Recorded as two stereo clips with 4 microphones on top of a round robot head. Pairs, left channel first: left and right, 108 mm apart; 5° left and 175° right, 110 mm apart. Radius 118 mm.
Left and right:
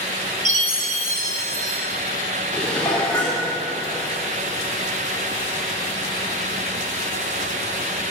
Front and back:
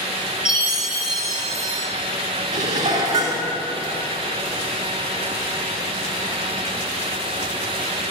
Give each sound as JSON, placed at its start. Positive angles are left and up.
{"t": 0.5, "sound": "a chime", "azimuth_deg": -90, "distance_m": 2.5}
{"t": 2.5, "sound": "dishes clattering", "azimuth_deg": 170, "distance_m": 2.0}